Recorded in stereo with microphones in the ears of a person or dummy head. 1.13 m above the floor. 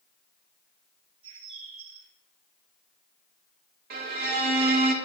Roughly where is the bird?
Right.